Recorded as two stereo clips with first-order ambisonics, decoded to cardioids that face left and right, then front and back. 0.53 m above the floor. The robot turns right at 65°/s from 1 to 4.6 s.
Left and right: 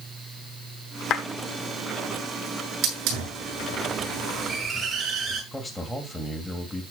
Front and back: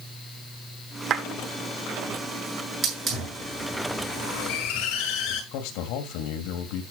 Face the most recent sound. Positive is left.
turn(degrees=5)